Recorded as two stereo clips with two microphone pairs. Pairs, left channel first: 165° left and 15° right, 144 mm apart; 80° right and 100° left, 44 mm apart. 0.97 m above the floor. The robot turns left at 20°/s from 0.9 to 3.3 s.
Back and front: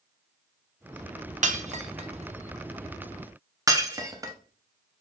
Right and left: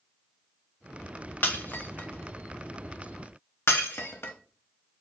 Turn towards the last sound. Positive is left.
turn(degrees=-75)